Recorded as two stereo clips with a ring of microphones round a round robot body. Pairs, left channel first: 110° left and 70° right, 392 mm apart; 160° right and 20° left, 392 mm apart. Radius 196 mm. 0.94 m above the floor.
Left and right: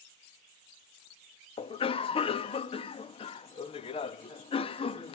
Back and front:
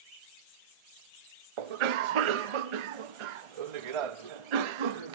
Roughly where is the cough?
Ahead left.